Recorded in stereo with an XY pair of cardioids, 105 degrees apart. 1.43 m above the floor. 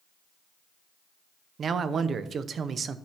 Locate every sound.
1.6 s a man speaking: 50° right, 0.7 m